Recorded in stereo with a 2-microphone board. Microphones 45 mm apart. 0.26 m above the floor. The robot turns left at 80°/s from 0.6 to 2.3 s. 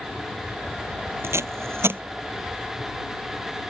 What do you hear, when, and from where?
1.2 s tape being pulled: 70° right (ahead or behind); by 2.0 s 50° right (ahead or behind)